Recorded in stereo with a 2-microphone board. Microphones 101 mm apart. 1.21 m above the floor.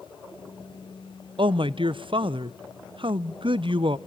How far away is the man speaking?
About 0.5 m.